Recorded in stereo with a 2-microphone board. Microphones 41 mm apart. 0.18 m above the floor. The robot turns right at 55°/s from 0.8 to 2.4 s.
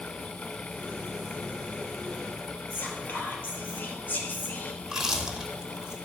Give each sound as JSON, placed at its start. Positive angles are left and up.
{"t": 2.7, "sound": "whispering", "side_deg": 50, "distance_m": 3.5}
{"t": 4.8, "sound": "chewing", "side_deg": -15, "distance_m": 1.8}